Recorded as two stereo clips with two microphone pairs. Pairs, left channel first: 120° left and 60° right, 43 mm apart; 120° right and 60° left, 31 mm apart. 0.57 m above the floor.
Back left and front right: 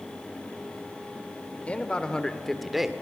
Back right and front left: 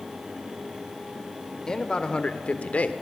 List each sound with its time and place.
1.7 s a man speaking: 175° left, 1.7 m; by 2.9 s 140° right, 1.4 m